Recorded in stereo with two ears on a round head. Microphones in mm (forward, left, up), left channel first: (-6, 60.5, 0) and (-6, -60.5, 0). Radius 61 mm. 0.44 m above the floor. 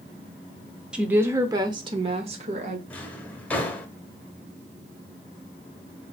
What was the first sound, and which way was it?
A woman speaking, 5° right (ahead or behind).